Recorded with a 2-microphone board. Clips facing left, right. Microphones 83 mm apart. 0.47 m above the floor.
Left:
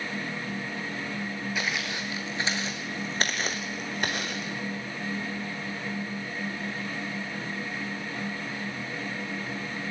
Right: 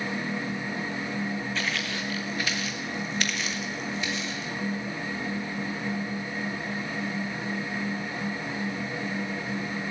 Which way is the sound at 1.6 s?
10° left (ahead or behind).